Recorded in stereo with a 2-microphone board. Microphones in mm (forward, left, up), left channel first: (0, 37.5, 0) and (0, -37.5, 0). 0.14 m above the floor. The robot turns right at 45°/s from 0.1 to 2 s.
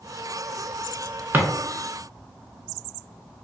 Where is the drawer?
25° right (ahead or behind), 0.6 m; by 1.5 s 20° right (ahead or behind), 0.6 m.